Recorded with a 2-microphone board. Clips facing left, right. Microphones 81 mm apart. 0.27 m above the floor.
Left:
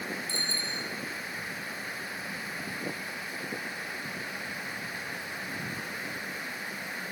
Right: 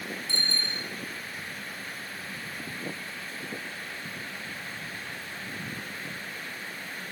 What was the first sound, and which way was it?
A bicycle bell, 65° right (ahead or behind).